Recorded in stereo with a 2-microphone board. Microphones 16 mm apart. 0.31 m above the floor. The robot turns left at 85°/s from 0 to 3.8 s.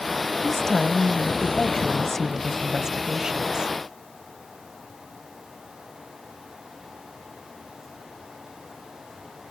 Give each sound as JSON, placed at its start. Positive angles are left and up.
{"t": 0.4, "sound": "a woman speaking", "azimuth_deg": 165, "distance_m": 1.3}